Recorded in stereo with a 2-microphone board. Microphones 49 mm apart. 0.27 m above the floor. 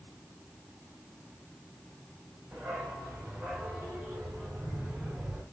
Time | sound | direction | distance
2.5 | a dog barking | 35° right (ahead or behind) | 9 m